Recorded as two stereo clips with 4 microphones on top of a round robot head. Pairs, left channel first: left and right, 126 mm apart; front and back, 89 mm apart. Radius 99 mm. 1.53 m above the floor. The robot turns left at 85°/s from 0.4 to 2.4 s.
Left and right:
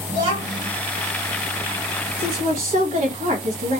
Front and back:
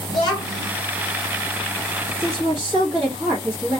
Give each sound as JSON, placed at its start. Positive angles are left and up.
{"t": 0.1, "sound": "a child speaking", "azimuth_deg": 40, "distance_m": 1.2}
{"t": 2.2, "sound": "a woman speaking", "azimuth_deg": -90, "distance_m": 0.7}